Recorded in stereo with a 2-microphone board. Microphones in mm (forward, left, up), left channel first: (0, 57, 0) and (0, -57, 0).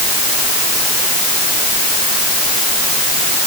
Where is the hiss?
No hiss in this recording.